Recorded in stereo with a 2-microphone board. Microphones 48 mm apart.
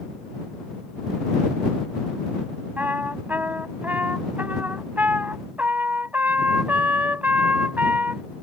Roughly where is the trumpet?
Right.